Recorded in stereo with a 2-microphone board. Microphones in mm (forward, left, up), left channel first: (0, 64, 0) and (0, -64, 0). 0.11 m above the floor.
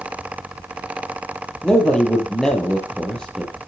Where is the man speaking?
5° left (ahead or behind), 2.5 m.